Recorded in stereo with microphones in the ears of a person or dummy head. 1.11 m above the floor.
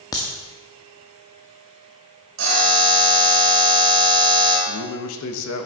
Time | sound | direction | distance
0.1 | a crack | 10° left (ahead or behind) | 0.6 m
2.4 | a buzzer | 70° right (ahead or behind) | 2.5 m
4.7 | a man speaking | 80° left | 1.1 m